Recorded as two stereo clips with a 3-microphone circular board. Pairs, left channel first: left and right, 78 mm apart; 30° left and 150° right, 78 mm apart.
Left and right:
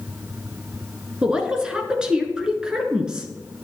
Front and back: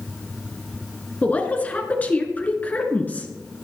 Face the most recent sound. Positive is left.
turn(degrees=-20)